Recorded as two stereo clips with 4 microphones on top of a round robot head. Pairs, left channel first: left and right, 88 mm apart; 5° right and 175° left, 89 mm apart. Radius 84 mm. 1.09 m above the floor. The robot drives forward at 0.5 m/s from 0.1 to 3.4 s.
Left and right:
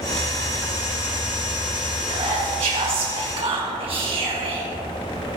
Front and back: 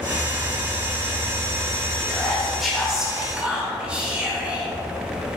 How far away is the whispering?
About 1.6 m.